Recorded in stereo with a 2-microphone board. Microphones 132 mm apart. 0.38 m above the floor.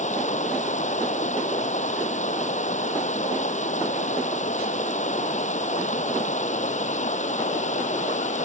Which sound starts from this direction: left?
Running water, at 0.0 s.